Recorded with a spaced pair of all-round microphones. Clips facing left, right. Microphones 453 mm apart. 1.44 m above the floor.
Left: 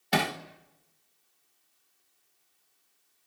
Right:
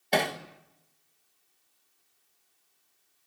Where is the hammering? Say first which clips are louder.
Right 1 dB; 25° left (ahead or behind), 1.5 m.